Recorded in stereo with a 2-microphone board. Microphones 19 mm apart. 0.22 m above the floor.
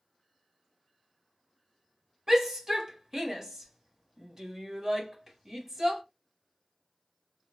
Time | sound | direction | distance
2.3 | a shout | 25° right (ahead or behind) | 1.0 m